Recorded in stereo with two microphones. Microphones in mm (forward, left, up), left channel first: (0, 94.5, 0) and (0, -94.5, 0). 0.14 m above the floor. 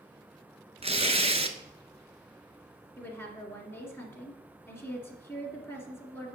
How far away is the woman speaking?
About 1.8 m.